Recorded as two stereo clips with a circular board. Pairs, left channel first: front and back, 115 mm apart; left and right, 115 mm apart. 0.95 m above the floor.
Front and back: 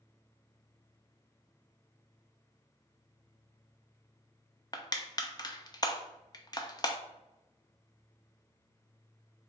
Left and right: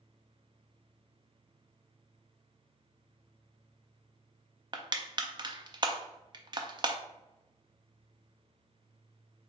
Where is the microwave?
No microwave in this recording.